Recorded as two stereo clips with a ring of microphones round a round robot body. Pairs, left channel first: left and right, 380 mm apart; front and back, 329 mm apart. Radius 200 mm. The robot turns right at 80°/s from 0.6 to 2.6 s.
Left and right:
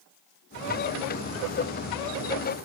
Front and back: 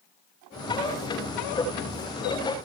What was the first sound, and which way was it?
Only background noise.